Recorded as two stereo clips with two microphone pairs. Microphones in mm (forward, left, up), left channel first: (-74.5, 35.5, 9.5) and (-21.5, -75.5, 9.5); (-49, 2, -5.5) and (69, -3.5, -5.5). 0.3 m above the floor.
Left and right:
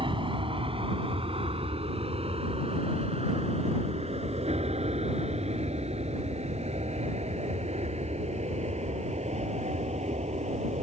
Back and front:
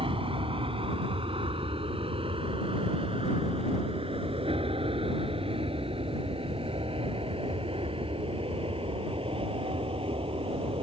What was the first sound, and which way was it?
An aircraft, 30° right.